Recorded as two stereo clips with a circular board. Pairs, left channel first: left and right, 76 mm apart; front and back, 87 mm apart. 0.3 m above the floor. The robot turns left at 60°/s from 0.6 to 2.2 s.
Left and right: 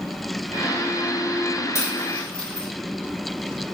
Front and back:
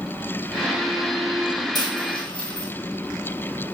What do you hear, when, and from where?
1.8 s a dropped coin: 40° left, 1.3 m; by 2.7 s 15° left, 1.3 m